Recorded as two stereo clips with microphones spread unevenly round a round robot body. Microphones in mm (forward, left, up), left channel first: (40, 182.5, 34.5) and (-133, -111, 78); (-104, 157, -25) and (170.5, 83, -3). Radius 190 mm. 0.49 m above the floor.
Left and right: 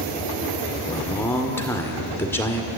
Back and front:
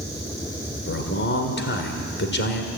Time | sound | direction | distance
0.9 | a man speaking | 135° left | 2.0 m